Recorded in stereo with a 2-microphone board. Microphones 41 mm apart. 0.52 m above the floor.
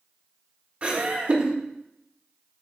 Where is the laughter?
30° right (ahead or behind), 0.9 m.